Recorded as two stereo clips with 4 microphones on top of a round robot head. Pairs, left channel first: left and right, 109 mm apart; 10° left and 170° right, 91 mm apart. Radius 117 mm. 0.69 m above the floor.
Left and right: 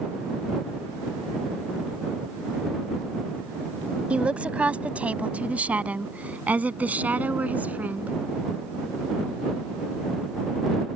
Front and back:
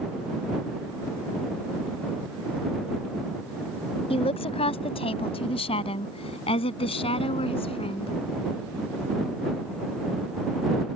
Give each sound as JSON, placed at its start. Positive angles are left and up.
{"t": 4.1, "sound": "a woman speaking", "azimuth_deg": -10}